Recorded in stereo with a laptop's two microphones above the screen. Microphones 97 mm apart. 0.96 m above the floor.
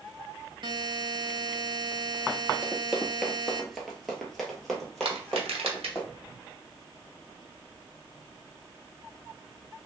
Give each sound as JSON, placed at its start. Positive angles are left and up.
{"t": 0.6, "sound": "a buzzer", "side_deg": -50, "distance_m": 0.6}
{"t": 2.6, "sound": "running footsteps", "side_deg": -10, "distance_m": 0.9}
{"t": 5.0, "sound": "crushing", "side_deg": -75, "distance_m": 0.7}